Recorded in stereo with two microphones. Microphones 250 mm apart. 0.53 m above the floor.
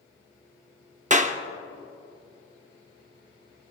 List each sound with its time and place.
1.1 s a clap: 30° right (ahead or behind), 0.6 m